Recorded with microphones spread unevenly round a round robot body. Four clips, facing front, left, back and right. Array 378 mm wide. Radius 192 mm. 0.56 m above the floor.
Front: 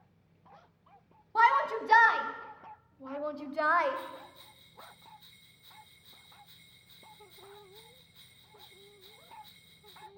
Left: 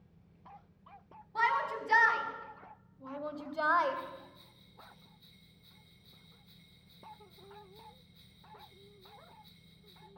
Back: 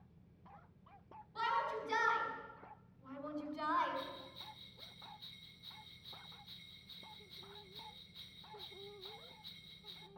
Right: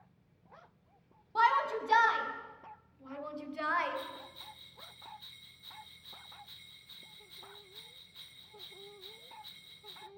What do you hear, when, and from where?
1.4 s a shout: 10° right, 4.5 m; by 4.0 s 30° left, 2.5 m
4.0 s a bell: 90° right, 1.0 m